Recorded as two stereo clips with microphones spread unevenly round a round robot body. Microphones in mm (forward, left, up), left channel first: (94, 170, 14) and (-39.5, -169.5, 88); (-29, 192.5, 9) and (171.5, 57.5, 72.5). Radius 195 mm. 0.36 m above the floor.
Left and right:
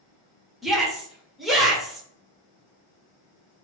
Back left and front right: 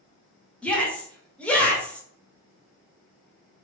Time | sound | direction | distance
0.6 | a shout | 125° left | 1.0 m